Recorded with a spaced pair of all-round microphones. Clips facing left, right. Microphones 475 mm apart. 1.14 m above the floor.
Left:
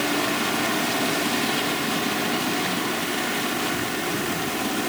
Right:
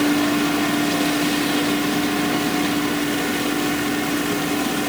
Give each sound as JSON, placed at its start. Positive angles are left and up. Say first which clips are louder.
{"t": 0.0, "sound": "a fan", "louder": "right 8 dB", "side_deg": -70}